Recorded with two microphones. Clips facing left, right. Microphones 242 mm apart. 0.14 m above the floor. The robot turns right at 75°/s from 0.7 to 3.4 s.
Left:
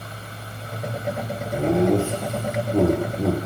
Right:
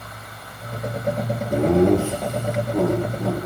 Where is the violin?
No violin in this recording.